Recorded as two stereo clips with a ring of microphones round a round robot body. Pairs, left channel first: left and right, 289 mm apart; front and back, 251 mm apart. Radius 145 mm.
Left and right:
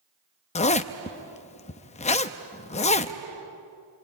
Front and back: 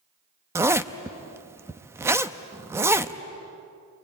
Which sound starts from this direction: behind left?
A zipper, at 0.6 s.